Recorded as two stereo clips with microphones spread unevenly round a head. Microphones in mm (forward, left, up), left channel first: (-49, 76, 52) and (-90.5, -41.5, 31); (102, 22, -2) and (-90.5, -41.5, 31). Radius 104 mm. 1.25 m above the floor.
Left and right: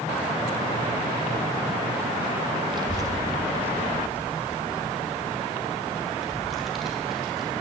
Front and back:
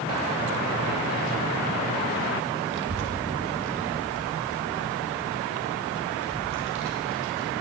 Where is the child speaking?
160° right, 0.7 m; by 7.5 s 160° left, 3 m.